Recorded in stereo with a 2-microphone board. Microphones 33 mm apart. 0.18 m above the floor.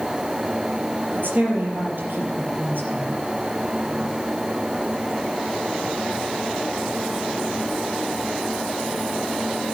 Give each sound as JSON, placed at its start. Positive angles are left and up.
{"t": 1.1, "sound": "a woman speaking", "side_deg": -75, "distance_m": 4.5}